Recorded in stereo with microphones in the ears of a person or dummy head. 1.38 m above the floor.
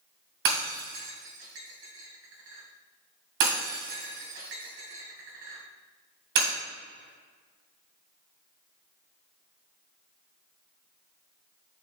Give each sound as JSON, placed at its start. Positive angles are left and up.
{"t": 0.5, "sound": "breaking glass", "side_deg": -60, "distance_m": 2.0}